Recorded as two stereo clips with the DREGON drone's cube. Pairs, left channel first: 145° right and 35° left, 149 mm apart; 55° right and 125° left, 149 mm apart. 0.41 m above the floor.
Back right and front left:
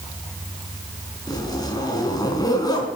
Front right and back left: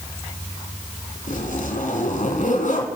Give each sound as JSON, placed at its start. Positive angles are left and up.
{"t": 1.3, "sound": "a zipper", "azimuth_deg": -80, "distance_m": 3.0}